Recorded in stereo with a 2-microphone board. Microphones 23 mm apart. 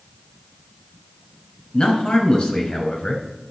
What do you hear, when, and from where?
1.7 s a man speaking: 45° left (ahead or behind), 2 m